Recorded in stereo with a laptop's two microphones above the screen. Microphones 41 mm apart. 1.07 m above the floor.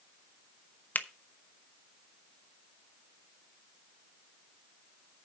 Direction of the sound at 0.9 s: 50° left (ahead or behind).